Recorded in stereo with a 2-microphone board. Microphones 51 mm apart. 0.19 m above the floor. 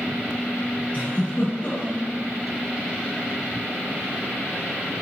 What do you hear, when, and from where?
0.9 s a giggle: 35° left (ahead or behind), 4.5 m